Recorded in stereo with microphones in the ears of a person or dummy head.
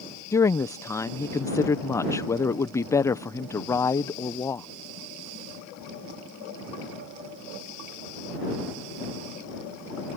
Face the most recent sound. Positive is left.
turn(degrees=20)  # may be behind; listen again after turning